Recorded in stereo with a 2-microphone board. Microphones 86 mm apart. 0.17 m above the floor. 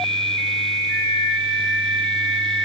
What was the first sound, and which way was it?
A flute, 15° left (ahead or behind).